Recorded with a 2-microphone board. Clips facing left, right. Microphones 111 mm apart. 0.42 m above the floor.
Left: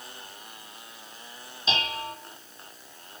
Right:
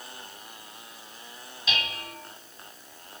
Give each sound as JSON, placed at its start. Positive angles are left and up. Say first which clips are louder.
{"t": 1.7, "sound": "dishes clattering", "louder": "left 4 dB", "side_deg": 30, "distance_m": 2.0}